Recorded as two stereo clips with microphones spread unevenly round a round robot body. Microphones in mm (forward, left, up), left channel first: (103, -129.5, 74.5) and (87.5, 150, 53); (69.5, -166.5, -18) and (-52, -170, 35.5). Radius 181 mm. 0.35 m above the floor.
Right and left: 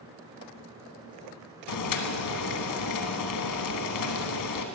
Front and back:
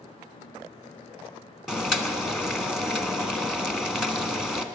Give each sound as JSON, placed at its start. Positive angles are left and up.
{"t": 1.7, "sound": "boiling", "azimuth_deg": -90, "distance_m": 1.4}